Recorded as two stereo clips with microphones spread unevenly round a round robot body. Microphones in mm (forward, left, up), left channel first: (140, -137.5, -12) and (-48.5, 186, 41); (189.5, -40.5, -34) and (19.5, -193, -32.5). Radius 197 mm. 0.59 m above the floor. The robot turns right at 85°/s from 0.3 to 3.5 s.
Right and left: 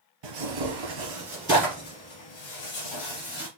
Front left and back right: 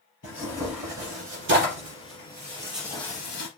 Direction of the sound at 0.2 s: 100° left.